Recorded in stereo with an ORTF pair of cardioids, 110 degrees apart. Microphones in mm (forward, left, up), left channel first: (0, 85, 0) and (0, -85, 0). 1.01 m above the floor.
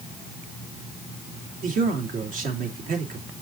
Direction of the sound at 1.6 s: 55° right.